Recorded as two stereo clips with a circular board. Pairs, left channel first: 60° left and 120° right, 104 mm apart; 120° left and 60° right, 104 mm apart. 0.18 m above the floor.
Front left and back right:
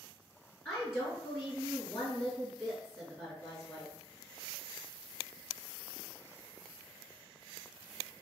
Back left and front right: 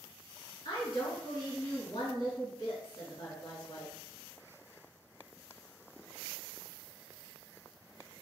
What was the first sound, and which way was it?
A woman speaking, 120° left.